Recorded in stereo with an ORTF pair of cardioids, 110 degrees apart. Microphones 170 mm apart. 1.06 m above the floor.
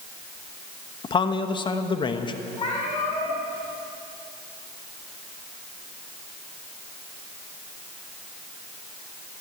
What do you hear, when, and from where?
1.0 s a man speaking: 30° left, 1.1 m
2.6 s a cat meowing: 35° left, 5 m